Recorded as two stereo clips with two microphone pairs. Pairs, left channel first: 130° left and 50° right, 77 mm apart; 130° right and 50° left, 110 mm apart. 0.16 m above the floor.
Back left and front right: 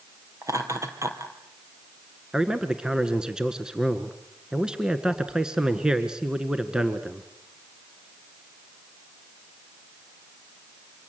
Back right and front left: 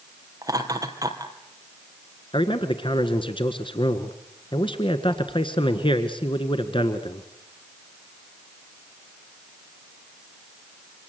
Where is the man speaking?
130° right, 1.6 m.